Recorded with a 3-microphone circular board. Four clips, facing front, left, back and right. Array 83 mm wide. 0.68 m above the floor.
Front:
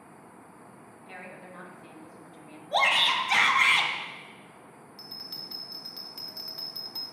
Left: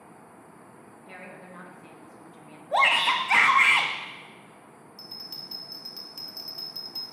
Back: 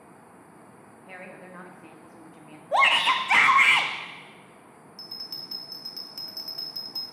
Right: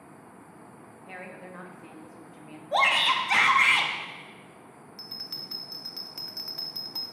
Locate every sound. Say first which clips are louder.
1.1 s a woman speaking: right 2 dB, back 2 dB; 145° right, 0.7 m
2.7 s a shout: left 1 dB, back 4 dB; 165° left, 0.7 m
5.0 s a bell: right 1 dB, even; 95° right, 0.6 m